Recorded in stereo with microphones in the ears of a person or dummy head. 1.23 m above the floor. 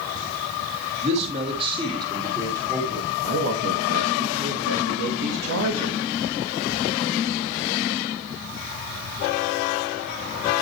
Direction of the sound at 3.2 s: 70° right (ahead or behind).